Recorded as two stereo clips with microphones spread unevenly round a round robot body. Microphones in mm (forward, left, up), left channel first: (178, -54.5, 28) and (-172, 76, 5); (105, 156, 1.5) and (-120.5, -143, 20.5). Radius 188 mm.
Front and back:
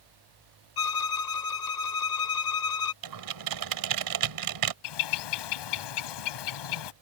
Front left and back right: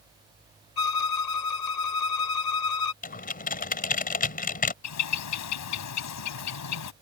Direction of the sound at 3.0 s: 120° left.